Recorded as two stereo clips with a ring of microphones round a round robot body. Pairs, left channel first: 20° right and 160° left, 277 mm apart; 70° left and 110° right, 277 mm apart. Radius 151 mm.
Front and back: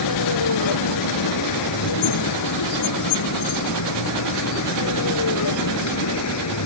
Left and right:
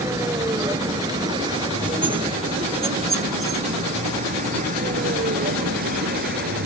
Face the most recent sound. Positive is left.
turn(degrees=-55)